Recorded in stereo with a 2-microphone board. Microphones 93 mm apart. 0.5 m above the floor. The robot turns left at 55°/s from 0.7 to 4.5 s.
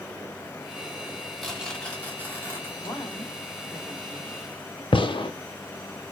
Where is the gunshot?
65° left (ahead or behind), 0.5 m.